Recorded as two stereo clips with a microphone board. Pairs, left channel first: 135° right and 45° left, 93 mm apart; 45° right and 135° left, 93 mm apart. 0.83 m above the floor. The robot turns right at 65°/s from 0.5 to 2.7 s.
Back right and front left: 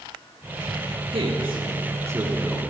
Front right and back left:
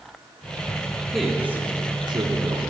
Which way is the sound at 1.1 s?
40° left.